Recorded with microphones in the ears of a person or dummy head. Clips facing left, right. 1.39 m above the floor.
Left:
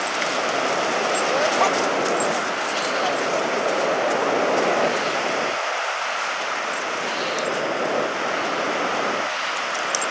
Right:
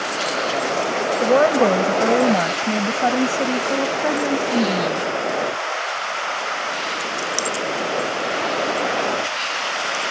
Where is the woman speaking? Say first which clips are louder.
Right 9 dB; 60° right (ahead or behind); by 5.0 s 65° right (ahead or behind).